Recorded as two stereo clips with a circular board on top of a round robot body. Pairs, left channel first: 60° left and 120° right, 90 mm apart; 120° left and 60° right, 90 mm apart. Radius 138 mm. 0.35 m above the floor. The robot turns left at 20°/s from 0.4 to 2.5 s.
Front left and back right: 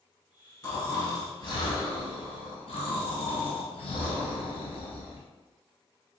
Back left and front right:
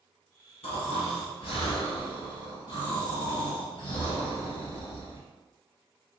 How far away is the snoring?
About 1.1 m.